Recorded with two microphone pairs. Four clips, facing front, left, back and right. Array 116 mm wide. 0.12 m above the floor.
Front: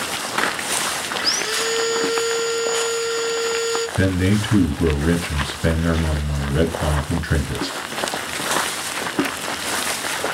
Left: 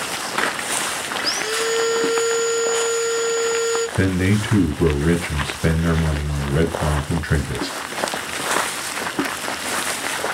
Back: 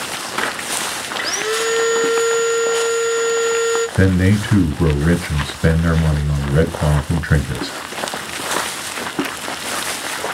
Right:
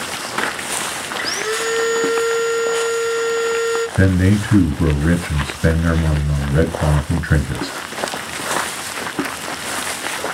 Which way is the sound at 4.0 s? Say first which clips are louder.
Right 3 dB, back 1 dB; 155° right.